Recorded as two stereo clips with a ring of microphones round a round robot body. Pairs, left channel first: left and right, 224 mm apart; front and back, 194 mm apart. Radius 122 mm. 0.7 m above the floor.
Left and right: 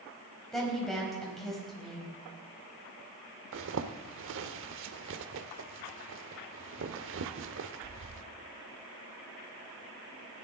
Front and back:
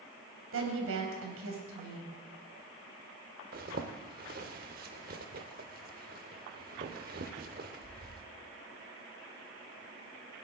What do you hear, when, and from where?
0.5 s a woman speaking: straight behind, 4 m
3.5 s a zipper: 125° right, 0.7 m